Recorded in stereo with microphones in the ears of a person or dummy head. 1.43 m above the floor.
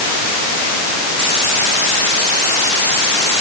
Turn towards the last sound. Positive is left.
No sound to turn to.